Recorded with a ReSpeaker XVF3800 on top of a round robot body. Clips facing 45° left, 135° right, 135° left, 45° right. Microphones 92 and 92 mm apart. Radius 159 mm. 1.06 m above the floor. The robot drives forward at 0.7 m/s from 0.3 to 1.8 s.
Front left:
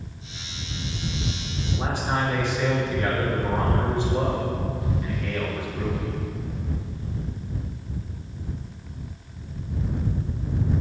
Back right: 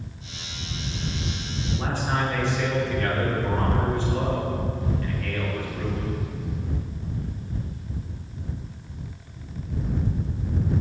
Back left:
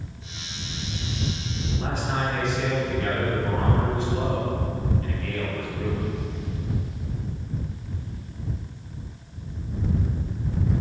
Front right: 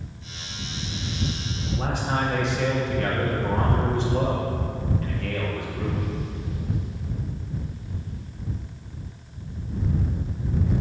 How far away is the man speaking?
About 2.5 m.